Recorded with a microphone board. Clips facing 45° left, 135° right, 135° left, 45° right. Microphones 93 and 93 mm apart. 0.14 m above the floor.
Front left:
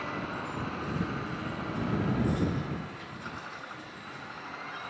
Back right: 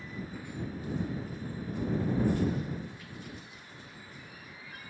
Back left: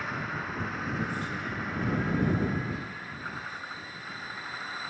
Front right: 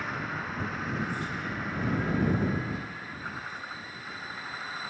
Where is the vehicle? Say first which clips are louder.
Front left 7 dB, even; 45° left.